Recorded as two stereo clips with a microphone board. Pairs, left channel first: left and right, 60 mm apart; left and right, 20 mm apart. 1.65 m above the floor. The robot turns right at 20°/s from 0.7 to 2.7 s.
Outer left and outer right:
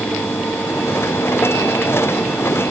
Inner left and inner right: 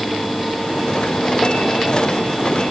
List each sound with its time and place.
Only background noise.